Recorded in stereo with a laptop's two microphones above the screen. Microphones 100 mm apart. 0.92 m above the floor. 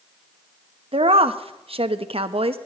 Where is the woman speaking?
70° right (ahead or behind), 0.7 m.